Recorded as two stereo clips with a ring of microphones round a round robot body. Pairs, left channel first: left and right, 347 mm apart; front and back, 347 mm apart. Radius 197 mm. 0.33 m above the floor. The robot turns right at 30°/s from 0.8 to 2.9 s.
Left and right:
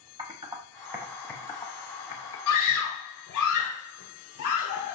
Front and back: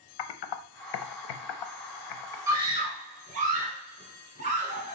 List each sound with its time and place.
0.2 s typing on a keyboard: 10° right, 0.8 m; by 2.4 s 35° left, 0.8 m
2.5 s a scream: 100° left, 2.0 m; by 5.0 s 115° left, 2.0 m